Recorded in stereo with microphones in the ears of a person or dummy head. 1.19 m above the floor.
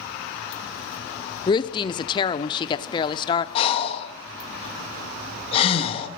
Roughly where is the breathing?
Left.